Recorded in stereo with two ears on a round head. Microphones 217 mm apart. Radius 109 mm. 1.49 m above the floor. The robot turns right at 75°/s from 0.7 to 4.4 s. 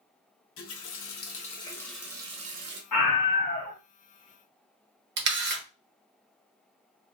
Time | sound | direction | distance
0.6 | a running tap | 85° left | 1.0 m
2.9 | a scream | 90° left | 1.8 m
5.2 | a camera shutter | 45° right (ahead or behind) | 1.0 m